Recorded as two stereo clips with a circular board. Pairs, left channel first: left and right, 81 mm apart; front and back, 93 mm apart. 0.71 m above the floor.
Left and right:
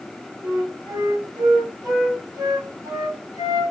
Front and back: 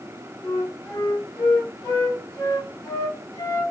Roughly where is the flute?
Ahead right.